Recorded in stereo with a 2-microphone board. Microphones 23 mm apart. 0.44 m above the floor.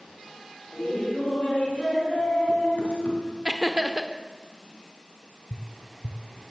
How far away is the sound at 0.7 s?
About 5.5 m.